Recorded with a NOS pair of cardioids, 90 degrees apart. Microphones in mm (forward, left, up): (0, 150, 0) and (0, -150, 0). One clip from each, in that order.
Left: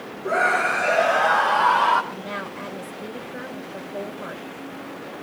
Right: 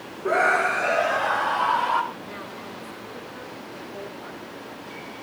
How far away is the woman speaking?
About 2.5 m.